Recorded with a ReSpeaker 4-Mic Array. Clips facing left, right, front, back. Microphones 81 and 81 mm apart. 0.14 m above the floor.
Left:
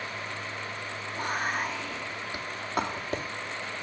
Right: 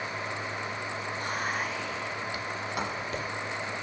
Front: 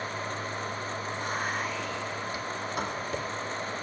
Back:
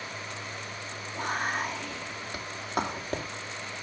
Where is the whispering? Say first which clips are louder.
Left 3 dB, back 3 dB; 145° left, 5 m.